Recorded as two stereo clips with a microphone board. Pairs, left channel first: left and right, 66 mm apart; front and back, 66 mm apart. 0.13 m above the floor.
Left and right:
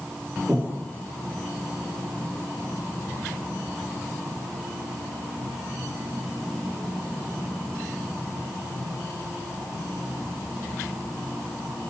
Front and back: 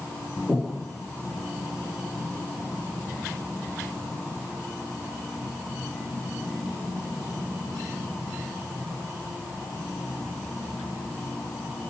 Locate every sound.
0.5 s breathing: 85° right, 1.2 m